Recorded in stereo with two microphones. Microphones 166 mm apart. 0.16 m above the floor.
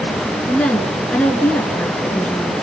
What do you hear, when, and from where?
0.5 s a woman speaking: 10° left (ahead or behind), 1.7 m